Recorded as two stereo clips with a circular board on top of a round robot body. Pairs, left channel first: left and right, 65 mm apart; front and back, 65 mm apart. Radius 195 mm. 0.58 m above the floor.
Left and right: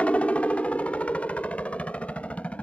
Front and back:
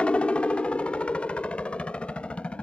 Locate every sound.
0.0 s a helicopter: 50° left